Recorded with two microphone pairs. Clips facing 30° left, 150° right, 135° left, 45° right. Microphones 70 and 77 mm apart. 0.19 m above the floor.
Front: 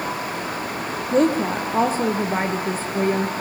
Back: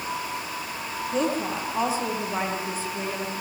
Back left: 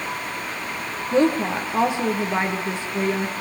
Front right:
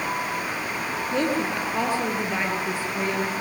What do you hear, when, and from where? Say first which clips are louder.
1.1 s a woman speaking: front 8 dB, back left 6 dB; 65° left, 4.5 m